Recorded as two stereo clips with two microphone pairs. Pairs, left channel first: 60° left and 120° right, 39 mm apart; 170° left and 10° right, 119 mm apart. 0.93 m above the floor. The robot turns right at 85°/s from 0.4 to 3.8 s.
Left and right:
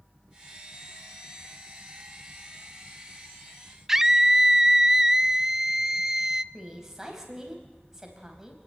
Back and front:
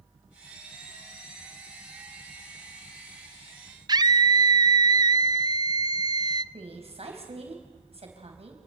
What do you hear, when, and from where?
3.9 s a scream: 45° right, 0.6 m
6.5 s a woman speaking: 45° right, 4.5 m